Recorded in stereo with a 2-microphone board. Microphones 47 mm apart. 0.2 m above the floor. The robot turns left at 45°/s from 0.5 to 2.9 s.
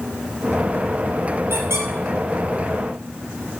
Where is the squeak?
70° right (ahead or behind), 1.2 m; by 1.9 s 80° right, 1.2 m.